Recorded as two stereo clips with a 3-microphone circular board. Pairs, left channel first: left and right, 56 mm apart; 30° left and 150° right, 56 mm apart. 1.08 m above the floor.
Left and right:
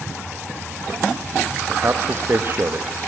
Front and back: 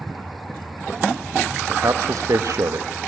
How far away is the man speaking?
About 1.1 m.